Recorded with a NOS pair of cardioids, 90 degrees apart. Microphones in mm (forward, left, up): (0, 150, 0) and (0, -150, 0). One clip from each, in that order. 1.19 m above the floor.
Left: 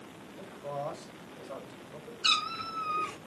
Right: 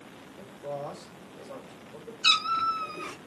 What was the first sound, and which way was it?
A man speaking, 30° right.